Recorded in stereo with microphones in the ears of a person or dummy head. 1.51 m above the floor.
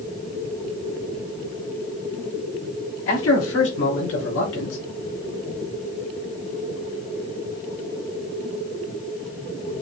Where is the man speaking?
75° left (ahead or behind), 4 m; by 4.8 s 85° left, 3.5 m.